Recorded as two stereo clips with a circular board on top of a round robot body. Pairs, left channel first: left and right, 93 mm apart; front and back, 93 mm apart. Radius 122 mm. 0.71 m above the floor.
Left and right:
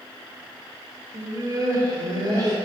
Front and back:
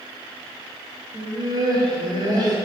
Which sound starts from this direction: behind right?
Laughter, at 1.1 s.